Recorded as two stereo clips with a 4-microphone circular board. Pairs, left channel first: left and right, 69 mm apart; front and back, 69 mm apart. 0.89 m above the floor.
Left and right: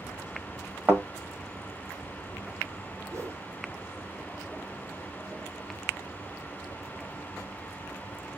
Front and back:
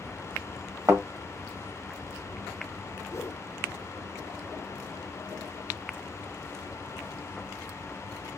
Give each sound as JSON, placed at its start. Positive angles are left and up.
{"t": 0.9, "sound": "a thud", "azimuth_deg": -150, "distance_m": 1.4}
{"t": 3.1, "sound": "a whoosh", "azimuth_deg": -45, "distance_m": 0.7}